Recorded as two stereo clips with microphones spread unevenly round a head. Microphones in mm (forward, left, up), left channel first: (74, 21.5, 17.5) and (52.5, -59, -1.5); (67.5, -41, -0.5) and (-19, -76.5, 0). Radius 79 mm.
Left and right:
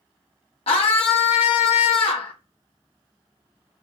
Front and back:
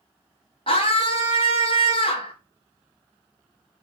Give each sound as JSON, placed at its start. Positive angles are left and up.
{"t": 0.7, "sound": "a scream", "azimuth_deg": 80, "distance_m": 1.5}